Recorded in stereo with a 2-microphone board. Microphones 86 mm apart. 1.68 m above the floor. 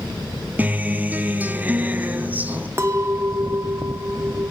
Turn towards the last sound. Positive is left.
turn(degrees=-30)  # may be behind; listen again after turning